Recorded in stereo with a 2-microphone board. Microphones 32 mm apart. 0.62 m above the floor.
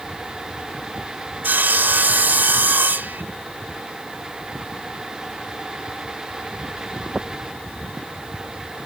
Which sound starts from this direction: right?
Sawing, at 1.4 s.